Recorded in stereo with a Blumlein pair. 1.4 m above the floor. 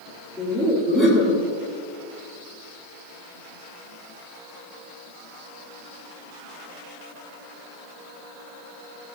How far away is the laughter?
About 3 m.